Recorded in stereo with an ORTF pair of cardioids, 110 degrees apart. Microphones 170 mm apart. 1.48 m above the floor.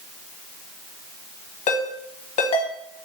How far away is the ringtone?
About 1.1 m.